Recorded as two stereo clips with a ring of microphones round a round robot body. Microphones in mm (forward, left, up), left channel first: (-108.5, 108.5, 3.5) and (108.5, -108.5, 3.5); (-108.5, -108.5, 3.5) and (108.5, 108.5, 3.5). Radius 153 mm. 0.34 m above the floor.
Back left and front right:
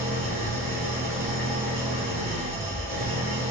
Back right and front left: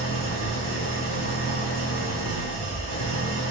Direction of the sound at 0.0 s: 140° right.